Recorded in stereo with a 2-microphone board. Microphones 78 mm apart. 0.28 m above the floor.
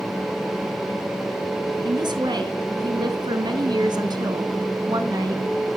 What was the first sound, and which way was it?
A woman speaking, 70° right (ahead or behind).